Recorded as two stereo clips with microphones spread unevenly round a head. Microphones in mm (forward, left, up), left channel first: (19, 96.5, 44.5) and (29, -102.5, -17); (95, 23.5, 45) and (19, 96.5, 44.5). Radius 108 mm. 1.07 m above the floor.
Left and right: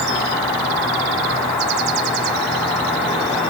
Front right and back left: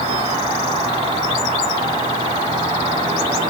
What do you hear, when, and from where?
0.0 s an insect: 160° left, 5.5 m